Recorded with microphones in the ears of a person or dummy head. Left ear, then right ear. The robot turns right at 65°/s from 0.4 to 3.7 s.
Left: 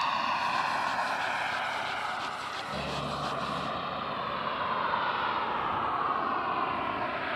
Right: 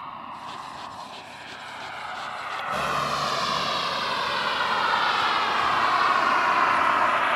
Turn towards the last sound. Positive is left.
turn(degrees=-40)  # may be behind; listen again after turning